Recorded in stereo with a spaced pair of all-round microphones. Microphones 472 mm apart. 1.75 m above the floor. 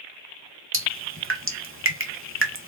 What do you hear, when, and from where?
0.7 s dripping: 25° right (ahead or behind), 1.5 m